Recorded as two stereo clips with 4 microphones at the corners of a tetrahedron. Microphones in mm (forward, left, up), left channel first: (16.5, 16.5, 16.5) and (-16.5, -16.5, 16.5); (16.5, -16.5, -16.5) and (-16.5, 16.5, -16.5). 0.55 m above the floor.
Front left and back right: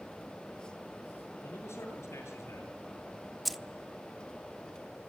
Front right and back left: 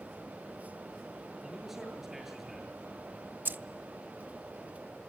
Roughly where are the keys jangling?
Behind left.